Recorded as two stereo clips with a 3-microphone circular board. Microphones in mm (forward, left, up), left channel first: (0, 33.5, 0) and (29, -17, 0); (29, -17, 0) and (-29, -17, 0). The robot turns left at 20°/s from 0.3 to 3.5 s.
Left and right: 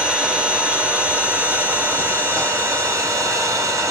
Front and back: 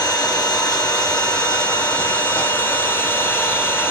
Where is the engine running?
15° left, 3 m; by 3.9 s 50° right, 3 m.